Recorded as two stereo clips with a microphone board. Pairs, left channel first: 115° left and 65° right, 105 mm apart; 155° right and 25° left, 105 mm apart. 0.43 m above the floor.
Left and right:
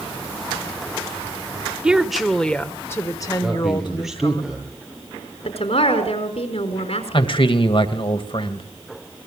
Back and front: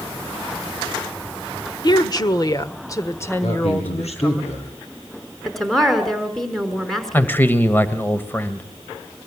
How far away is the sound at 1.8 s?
About 1.6 m.